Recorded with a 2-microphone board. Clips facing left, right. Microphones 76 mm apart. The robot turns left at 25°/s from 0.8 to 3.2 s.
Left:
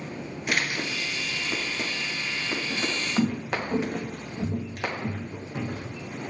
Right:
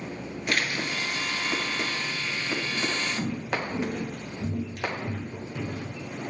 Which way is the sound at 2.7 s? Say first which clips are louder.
Left 2 dB; 50° left (ahead or behind).